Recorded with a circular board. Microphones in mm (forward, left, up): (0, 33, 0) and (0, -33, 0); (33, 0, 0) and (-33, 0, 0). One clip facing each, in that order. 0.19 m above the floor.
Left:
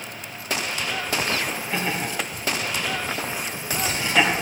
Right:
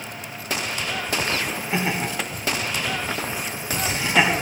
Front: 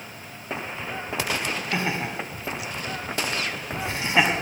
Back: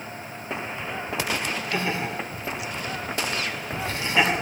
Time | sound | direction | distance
1.7 | laughter | 35° right | 1.7 m